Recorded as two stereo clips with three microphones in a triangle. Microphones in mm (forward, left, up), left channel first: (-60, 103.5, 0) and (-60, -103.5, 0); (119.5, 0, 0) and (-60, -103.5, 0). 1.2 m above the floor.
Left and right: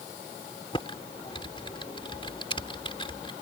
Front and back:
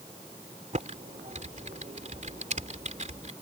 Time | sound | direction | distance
0.7 | typing on a keyboard | 155° left | ?